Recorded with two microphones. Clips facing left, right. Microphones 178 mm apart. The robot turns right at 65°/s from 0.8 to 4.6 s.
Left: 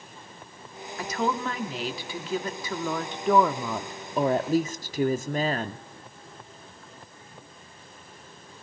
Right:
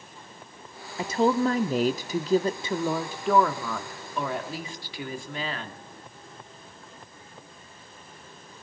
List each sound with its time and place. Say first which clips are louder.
1.0 s a woman speaking: right 6 dB; 145° right, 1.1 m; by 5.8 s 90° left, 1.1 m